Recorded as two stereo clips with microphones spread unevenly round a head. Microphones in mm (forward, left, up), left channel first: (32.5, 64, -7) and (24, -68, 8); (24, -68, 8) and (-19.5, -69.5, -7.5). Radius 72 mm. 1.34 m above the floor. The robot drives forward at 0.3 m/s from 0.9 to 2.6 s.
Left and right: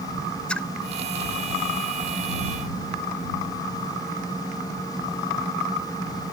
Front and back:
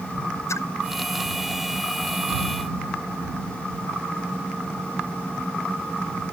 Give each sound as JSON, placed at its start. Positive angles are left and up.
{"t": 0.5, "sound": "a splash", "azimuth_deg": 5}